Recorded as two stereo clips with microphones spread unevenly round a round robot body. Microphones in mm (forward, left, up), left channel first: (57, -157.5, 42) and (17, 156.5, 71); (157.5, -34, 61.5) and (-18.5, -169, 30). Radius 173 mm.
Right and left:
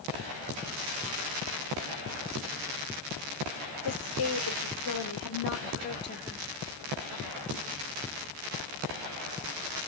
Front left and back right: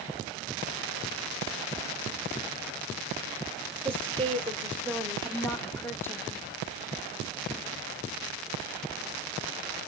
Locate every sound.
3.9 s a woman speaking: 50° right, 2.5 m; by 6.4 s 45° right, 1.4 m